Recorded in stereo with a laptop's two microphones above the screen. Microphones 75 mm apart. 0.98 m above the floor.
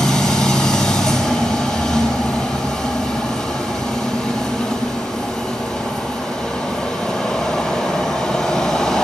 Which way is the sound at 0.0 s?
5° left (ahead or behind).